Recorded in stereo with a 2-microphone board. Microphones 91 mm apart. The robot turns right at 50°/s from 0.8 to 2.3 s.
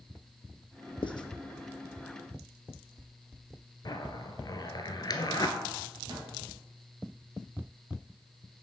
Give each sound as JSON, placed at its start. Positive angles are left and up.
{"t": 1.0, "sound": "writing", "side_deg": 70, "distance_m": 0.7}
{"t": 3.9, "sound": "a zipper", "side_deg": 50, "distance_m": 0.7}
{"t": 6.1, "sound": "a microwave", "side_deg": -60, "distance_m": 3.5}